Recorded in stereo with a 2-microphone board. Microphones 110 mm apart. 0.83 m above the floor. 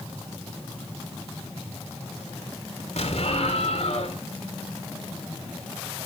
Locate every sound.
3.0 s an explosion: 70° left (ahead or behind), 2.5 m